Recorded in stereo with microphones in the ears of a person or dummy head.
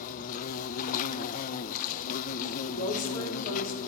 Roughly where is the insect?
Left.